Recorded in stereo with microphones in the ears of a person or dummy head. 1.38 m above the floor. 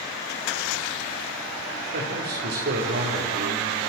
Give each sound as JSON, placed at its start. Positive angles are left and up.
{"t": 1.9, "sound": "a man speaking", "side_deg": -50, "distance_m": 5.0}